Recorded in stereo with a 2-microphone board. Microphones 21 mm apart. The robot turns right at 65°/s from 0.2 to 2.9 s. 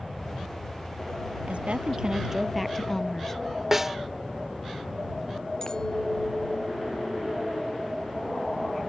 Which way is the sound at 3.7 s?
15° right (ahead or behind).